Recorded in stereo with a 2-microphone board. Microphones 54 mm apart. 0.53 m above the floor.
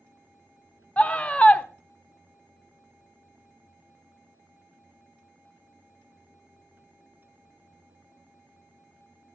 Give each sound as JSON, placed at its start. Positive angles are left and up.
{"t": 1.0, "sound": "a scream", "side_deg": 25, "distance_m": 1.1}